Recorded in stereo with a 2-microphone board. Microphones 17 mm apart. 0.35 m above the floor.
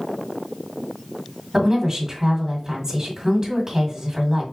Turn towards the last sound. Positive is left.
turn(degrees=-30)  # may be behind; listen again after turning